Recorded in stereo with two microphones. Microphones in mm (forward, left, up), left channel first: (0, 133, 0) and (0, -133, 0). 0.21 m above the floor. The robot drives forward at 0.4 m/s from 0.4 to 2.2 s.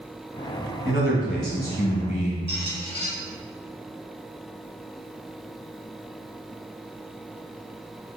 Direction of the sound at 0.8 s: 40° left (ahead or behind).